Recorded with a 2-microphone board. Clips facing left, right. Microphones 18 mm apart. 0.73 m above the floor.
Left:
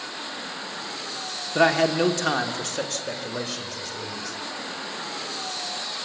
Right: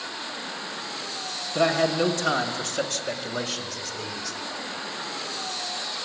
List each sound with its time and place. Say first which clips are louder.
1.6 s a man speaking: left 2 dB; 45° left (ahead or behind), 1.4 m; by 4.4 s 25° right (ahead or behind), 3 m